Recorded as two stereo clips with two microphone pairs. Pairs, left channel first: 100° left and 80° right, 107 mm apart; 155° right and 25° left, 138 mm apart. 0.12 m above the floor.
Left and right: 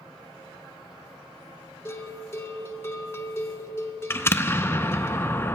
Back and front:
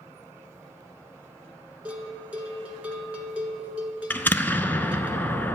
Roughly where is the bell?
Left.